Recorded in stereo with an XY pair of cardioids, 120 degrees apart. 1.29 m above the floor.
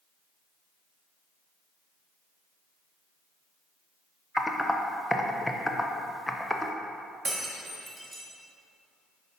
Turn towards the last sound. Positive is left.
turn(degrees=-15)